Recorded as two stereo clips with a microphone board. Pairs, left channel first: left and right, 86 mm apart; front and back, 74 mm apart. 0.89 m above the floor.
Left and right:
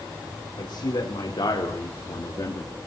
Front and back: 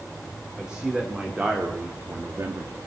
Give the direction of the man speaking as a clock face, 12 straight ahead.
9 o'clock.